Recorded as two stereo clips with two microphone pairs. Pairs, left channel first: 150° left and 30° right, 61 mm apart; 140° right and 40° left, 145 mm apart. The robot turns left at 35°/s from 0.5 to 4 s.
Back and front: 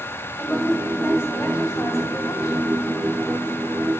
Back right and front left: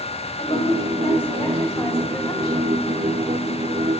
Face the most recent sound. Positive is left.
turn(degrees=80)